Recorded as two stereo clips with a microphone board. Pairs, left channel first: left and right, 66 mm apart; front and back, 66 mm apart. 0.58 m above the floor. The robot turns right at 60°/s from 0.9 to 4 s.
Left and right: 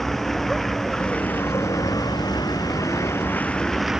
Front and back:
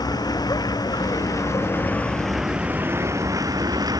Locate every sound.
0.0 s a vehicle: 5° left; by 4.0 s 170° right